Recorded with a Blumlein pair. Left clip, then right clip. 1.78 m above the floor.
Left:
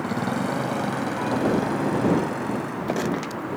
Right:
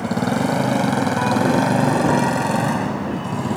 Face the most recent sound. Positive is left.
turn(degrees=-40)